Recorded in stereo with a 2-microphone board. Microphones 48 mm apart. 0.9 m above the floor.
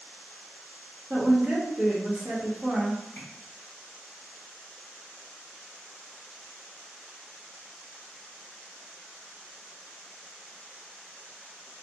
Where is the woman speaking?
10° right (ahead or behind), 1.4 m.